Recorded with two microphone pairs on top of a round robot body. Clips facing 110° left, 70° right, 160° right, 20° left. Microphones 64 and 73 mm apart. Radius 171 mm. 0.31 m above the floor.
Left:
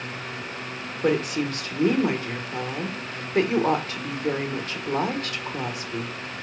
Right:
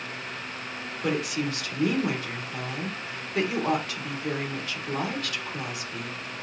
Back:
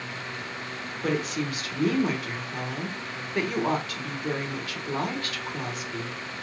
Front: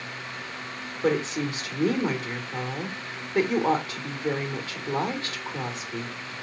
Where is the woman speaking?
80° left, 1.5 m.